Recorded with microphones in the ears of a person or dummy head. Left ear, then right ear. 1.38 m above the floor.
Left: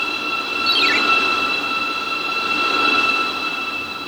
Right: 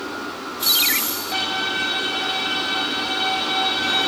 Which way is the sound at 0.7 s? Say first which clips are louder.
Left 2 dB; 5° left (ahead or behind).